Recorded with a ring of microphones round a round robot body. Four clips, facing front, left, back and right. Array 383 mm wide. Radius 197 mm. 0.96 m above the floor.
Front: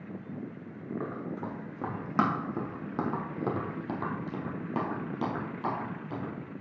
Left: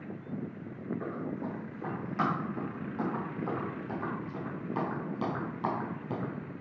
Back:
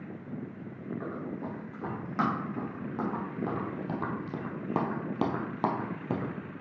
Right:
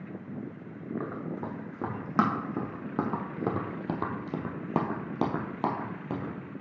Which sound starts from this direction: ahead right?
Running footsteps, at 1.0 s.